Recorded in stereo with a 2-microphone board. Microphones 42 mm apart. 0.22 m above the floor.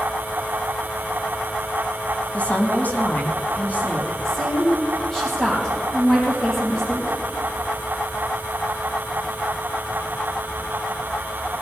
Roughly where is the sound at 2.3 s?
Left.